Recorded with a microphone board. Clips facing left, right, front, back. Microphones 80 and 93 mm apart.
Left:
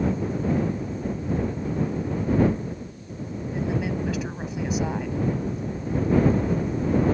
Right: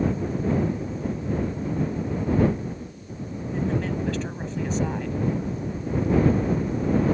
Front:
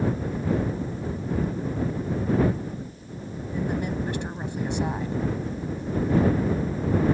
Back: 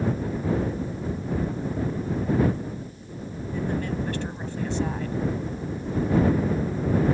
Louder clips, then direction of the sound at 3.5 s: Right 1 dB, even; 30° left.